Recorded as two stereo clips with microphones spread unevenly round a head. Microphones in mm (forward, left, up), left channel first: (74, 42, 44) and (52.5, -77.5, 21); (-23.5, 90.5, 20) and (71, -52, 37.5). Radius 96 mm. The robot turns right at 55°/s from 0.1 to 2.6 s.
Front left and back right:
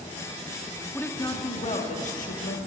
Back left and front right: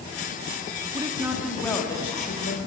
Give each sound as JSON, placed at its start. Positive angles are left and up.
{"t": 0.9, "sound": "a woman speaking", "azimuth_deg": 5, "distance_m": 2.5}